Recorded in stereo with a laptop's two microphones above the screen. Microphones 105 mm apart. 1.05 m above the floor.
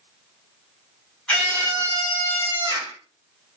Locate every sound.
1.3 s a scream: 10° left (ahead or behind), 4.5 m; by 3.0 s 30° left (ahead or behind), 4 m